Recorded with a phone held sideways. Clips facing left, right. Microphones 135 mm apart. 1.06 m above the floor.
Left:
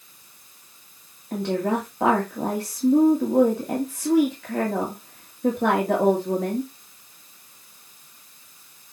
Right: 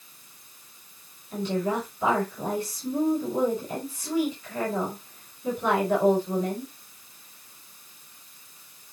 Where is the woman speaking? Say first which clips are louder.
Left 3 dB; 70° left (ahead or behind), 2.5 m.